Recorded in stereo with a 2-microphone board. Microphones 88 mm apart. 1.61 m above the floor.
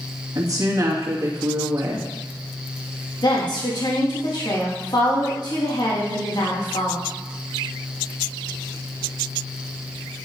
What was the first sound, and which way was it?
A woman speaking, 40° right (ahead or behind).